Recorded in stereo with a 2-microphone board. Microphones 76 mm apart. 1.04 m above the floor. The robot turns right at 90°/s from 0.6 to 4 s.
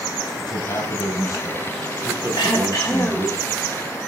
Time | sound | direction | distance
0.4 | a man speaking | 60° left | 7.5 m
2.4 | throat clearing | 95° left | 3.5 m